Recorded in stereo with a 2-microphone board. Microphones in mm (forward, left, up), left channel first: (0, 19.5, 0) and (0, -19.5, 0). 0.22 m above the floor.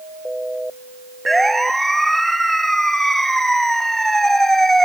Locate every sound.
1.3 s a siren: 5° left (ahead or behind); by 4.8 s 10° left (ahead or behind)